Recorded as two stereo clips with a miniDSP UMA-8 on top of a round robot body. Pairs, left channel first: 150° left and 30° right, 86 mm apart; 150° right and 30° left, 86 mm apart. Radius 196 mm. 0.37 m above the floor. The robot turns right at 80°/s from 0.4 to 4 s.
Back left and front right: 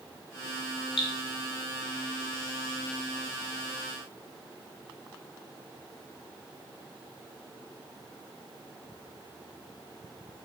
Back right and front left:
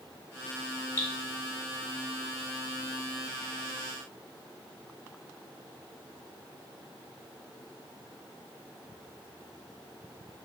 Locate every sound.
1.0 s dripping: 145° left, 0.6 m; by 1.1 s 155° left, 0.6 m